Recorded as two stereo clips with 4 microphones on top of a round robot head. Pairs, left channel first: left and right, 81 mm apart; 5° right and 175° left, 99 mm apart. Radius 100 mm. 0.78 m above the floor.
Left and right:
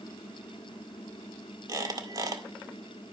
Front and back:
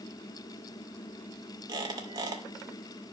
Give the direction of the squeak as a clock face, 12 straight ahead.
4 o'clock.